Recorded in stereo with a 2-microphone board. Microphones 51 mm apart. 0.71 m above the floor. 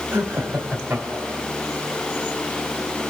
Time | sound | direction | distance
0.1 | laughter | 50° right (ahead or behind) | 4.5 m